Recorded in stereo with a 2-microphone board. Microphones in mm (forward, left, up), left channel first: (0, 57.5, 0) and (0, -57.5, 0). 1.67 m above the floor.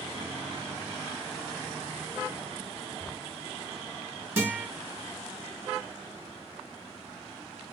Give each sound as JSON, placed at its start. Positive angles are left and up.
{"t": 3.0, "sound": "a cupboard door", "side_deg": -50, "distance_m": 4.0}
{"t": 4.4, "sound": "a guitar", "side_deg": -20, "distance_m": 4.5}